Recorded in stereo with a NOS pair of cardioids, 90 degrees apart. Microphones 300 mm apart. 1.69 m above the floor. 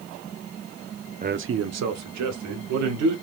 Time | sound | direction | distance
1.2 | a man speaking | 25° right | 0.6 m